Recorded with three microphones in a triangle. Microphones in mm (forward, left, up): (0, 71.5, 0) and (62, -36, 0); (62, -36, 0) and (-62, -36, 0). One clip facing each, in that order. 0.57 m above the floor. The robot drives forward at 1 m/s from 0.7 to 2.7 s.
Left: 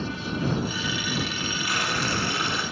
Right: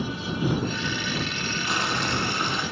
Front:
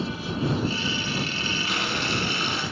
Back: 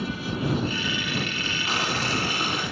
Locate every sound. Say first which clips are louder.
1.7 s boiling: right 1 dB, back 3 dB; 125° right, 5 m; by 2.6 s 135° right, 5.5 m